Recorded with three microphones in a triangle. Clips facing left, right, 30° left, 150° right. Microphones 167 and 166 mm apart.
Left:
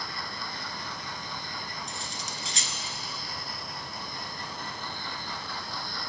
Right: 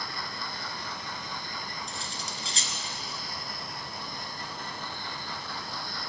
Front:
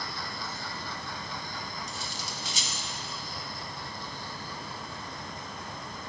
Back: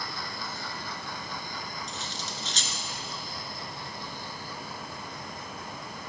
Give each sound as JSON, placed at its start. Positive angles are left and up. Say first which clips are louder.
{"t": 1.9, "sound": "cutlery clinking", "louder": "even, back 1 dB", "azimuth_deg": -45, "distance_m": 1.1}